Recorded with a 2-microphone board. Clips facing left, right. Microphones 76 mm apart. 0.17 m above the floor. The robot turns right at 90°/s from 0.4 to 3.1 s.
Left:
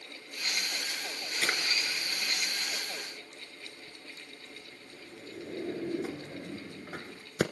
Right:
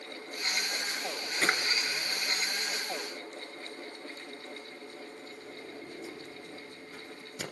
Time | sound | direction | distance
1.4 | a drawer | 40° right (ahead or behind) | 1.1 m